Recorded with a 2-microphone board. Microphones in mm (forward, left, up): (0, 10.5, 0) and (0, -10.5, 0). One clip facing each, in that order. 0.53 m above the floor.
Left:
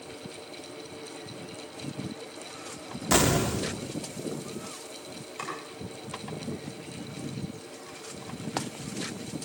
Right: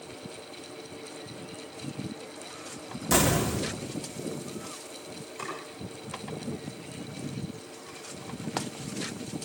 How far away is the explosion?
About 1.2 m.